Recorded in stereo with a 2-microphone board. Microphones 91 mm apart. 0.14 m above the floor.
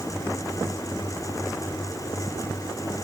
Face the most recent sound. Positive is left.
No sound to turn to.